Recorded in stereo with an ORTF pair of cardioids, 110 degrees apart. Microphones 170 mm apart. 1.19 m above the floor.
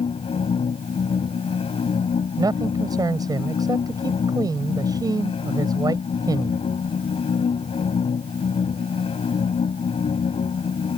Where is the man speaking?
20° right.